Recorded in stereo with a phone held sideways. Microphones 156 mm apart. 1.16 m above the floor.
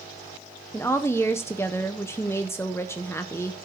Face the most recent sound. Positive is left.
turn(degrees=15)  # may be behind; listen again after turning